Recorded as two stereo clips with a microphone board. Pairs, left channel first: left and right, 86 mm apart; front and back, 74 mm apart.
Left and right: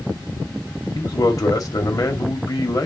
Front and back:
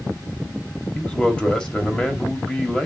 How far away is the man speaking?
About 1.6 m.